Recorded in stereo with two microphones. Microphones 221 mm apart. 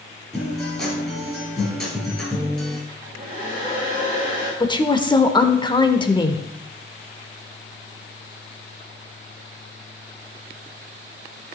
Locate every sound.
0.3 s a guitar: centre (ahead or behind), 4.5 m
2.9 s a hair dryer: 35° right (ahead or behind), 5.5 m
4.6 s a woman speaking: 20° left (ahead or behind), 0.8 m